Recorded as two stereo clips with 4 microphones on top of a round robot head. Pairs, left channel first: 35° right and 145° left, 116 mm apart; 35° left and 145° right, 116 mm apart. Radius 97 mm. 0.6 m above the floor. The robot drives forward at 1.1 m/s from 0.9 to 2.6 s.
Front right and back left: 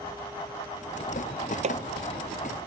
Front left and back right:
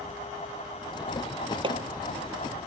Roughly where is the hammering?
Behind.